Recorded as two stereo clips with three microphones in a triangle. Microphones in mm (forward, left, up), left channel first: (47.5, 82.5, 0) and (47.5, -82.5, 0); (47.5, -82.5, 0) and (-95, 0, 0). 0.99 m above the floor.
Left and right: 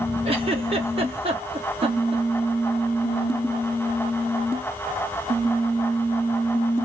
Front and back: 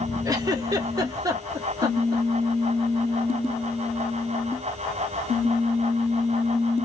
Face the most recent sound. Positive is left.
turn(degrees=-140)